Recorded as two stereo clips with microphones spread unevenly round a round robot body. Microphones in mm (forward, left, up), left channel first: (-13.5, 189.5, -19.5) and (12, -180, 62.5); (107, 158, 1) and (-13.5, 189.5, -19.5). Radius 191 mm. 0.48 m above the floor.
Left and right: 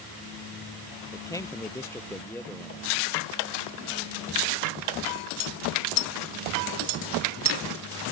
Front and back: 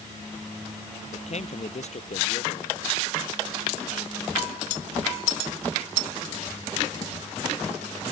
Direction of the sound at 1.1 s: 10° left.